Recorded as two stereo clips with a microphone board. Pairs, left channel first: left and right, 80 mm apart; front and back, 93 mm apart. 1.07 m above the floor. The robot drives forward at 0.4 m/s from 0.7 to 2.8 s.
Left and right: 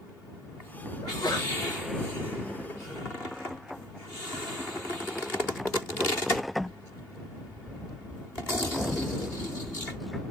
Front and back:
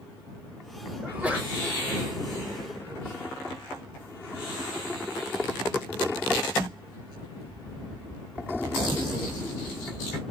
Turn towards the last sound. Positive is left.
turn(degrees=125)